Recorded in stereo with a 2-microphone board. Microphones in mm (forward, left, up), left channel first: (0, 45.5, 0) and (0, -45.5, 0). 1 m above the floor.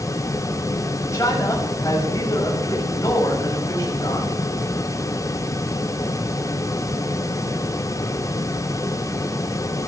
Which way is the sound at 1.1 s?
35° left (ahead or behind).